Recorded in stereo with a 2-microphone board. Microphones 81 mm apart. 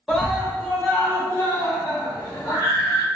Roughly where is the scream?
Centre.